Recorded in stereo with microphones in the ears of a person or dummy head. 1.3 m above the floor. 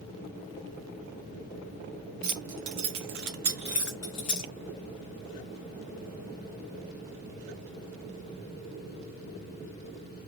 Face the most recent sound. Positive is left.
turn(degrees=35)  # may be behind; listen again after turning